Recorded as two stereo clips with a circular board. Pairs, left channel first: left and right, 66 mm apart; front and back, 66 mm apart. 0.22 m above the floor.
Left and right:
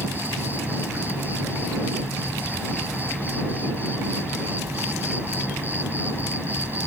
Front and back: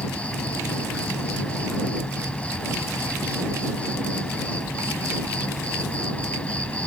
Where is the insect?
55° right.